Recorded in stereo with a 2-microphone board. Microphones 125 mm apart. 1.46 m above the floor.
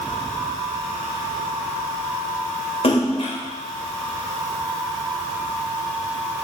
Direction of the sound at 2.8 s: 50° left (ahead or behind).